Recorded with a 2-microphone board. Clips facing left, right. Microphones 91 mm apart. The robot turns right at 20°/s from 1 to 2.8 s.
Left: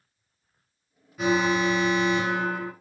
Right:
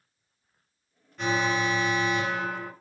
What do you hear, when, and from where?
1.2 s an alarm: 5° left (ahead or behind), 1.8 m; by 2.7 s 15° left (ahead or behind), 1.8 m